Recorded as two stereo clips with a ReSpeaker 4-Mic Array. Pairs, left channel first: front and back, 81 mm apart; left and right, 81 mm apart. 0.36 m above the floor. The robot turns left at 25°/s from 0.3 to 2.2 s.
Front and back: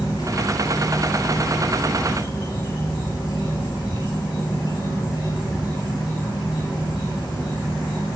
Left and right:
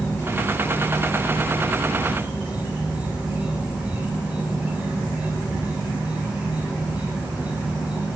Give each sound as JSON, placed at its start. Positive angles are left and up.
{"t": 0.0, "sound": "an insect", "azimuth_deg": 30, "distance_m": 9.5}